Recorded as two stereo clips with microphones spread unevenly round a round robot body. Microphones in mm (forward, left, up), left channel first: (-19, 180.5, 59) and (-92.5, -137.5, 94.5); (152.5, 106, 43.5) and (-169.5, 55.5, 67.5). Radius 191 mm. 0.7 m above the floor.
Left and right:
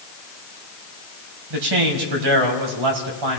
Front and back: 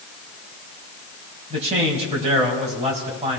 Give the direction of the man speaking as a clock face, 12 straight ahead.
3 o'clock.